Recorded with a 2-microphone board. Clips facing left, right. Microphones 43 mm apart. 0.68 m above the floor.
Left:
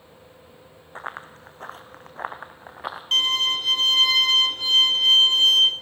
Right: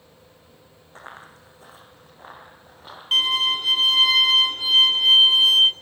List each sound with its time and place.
0.9 s running footsteps: 25° left (ahead or behind), 2.5 m; by 3.0 s 80° left, 3 m
3.1 s a violin: 10° right (ahead or behind), 1.5 m